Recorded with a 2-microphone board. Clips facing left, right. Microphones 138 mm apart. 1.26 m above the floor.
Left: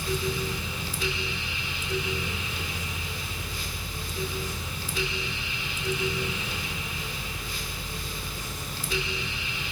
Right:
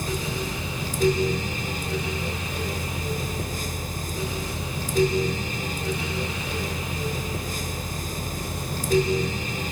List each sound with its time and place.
Only background noise.